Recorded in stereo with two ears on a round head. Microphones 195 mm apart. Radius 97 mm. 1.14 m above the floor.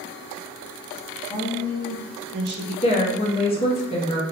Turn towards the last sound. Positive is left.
turn(degrees=25)  # may be behind; listen again after turning